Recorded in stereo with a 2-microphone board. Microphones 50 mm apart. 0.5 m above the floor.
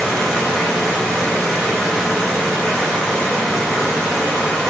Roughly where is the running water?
Centre.